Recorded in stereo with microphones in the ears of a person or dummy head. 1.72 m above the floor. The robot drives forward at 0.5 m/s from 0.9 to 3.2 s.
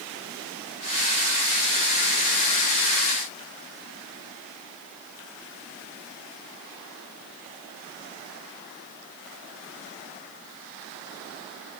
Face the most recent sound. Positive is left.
No sound to turn to.